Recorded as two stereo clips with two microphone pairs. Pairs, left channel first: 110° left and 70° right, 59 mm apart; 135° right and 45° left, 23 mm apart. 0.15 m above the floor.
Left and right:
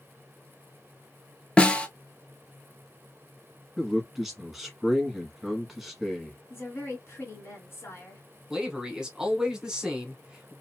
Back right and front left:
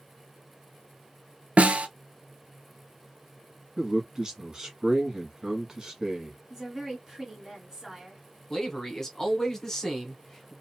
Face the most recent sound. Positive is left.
turn(degrees=-130)